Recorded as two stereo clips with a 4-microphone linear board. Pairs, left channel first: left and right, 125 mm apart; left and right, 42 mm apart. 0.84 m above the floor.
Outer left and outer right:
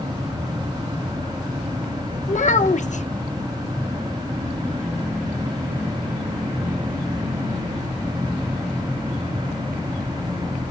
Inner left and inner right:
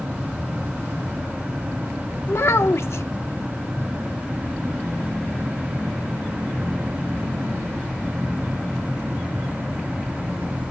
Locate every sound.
2.3 s a child speaking: 65° left (ahead or behind), 1.0 m